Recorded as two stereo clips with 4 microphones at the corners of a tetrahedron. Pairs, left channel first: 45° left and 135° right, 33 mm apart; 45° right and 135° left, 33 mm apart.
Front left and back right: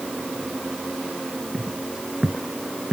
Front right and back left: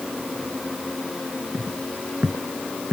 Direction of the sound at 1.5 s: 150° left.